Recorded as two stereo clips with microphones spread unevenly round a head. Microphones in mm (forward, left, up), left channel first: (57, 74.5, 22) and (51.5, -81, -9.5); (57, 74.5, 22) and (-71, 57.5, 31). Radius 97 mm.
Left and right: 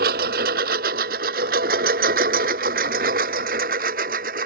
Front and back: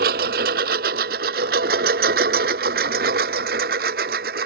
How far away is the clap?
I don't hear a clap.